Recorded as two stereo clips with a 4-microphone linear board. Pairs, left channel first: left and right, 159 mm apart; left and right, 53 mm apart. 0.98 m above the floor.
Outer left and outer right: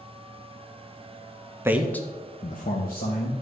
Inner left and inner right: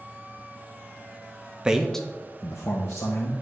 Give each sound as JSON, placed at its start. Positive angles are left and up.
{"t": 1.6, "sound": "a man speaking", "side_deg": -15, "distance_m": 0.6}